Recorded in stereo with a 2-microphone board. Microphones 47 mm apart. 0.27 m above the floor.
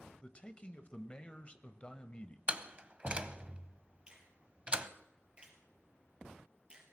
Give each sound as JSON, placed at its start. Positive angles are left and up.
{"t": 0.2, "sound": "a man speaking", "side_deg": 25, "distance_m": 1.0}
{"t": 2.5, "sound": "a door slam", "side_deg": -25, "distance_m": 0.8}
{"t": 4.1, "sound": "a finger snap", "side_deg": -25, "distance_m": 4.0}